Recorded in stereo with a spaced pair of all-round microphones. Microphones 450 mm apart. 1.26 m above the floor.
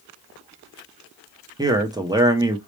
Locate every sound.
1.6 s a man speaking: 10° right (ahead or behind), 0.5 m